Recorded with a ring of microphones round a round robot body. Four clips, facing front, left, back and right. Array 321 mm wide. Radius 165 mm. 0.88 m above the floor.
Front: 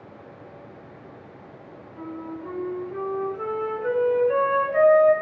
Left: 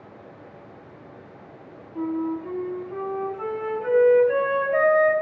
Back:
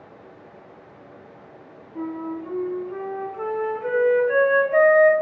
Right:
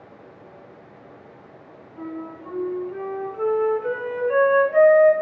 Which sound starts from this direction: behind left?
A flute, at 1.9 s.